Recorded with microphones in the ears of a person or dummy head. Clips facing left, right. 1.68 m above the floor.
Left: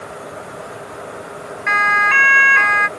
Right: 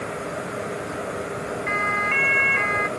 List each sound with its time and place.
1.7 s a siren: 90° left